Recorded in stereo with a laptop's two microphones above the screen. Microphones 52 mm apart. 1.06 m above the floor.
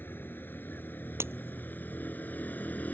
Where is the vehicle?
45° left (ahead or behind); by 3.0 s 35° left (ahead or behind).